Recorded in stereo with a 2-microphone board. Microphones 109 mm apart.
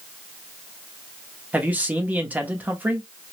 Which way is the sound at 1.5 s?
15° right (ahead or behind).